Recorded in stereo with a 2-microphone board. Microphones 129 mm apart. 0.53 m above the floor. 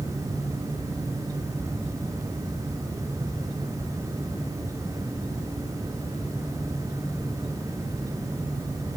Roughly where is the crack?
I don't hear a crack.